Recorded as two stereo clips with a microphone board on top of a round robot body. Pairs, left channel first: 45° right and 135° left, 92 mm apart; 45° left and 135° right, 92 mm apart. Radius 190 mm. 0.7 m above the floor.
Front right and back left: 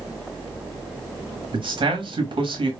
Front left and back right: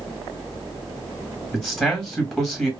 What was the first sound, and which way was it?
A man speaking, 135° left.